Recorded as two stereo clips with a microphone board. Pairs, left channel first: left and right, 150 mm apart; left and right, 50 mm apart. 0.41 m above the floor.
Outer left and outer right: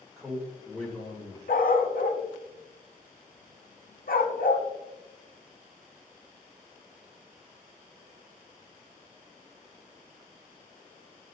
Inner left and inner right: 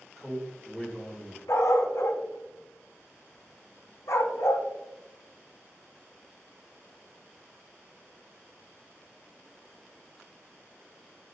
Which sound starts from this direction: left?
A dog barking, at 1.5 s.